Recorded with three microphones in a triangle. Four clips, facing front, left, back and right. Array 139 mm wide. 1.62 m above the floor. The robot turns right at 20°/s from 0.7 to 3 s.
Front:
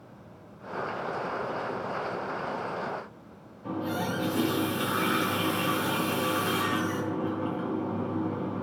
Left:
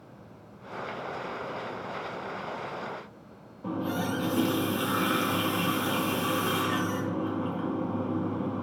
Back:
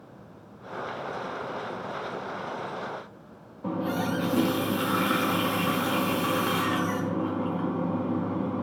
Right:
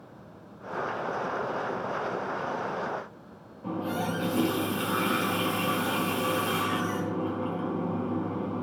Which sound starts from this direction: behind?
A running tap, at 3.6 s.